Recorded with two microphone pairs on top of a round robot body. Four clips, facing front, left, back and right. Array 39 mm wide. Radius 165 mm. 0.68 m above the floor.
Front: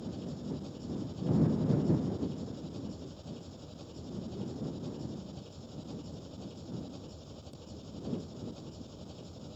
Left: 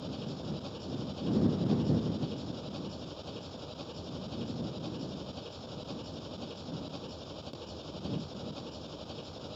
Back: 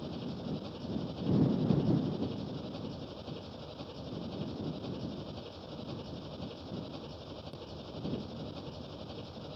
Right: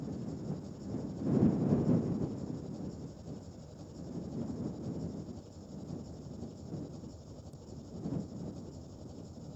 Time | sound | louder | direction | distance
0.0 | an engine running | left 1 dB, back 1 dB | 125° left | ?